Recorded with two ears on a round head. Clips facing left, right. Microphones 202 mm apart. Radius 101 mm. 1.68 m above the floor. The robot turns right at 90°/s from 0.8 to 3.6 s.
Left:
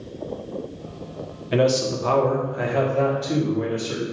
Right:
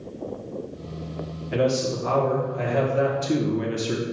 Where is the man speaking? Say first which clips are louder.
Left 3 dB; 65° left, 1.0 m; by 4.0 s 110° right, 1.0 m.